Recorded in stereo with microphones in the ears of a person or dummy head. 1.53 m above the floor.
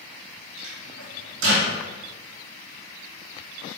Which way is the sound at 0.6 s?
75° right (ahead or behind).